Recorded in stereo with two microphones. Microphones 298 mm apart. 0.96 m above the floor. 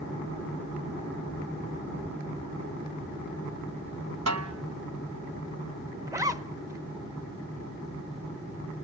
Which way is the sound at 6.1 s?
10° right (ahead or behind).